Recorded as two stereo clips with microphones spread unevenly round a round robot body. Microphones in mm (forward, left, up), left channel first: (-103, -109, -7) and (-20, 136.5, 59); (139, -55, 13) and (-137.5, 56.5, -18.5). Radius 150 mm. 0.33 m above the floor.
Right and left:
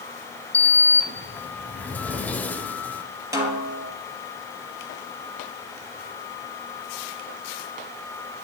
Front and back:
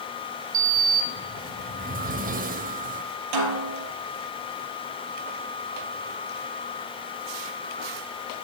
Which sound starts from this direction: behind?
A sliding door, at 0.5 s.